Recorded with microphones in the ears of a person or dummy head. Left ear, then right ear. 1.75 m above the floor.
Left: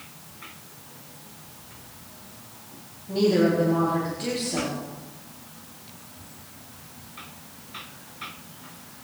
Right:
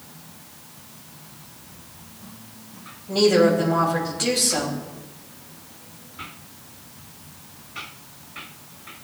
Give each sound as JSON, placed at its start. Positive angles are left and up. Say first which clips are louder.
{"t": 3.1, "sound": "a woman speaking", "louder": "right 5 dB", "side_deg": -50, "distance_m": 3.0}